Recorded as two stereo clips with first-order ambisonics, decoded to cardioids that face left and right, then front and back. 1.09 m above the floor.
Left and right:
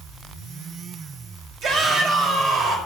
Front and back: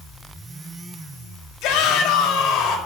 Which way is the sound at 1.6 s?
35° right.